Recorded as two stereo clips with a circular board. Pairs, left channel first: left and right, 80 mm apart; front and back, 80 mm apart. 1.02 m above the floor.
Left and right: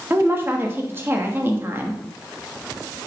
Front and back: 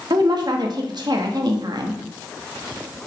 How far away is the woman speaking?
About 1.4 m.